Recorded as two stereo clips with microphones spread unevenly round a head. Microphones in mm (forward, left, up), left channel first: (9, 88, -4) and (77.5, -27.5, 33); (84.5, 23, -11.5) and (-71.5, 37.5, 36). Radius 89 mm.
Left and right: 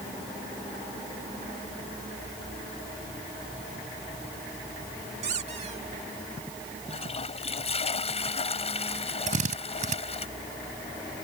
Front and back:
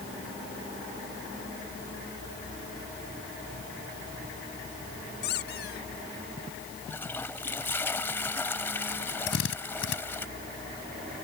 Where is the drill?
35° right.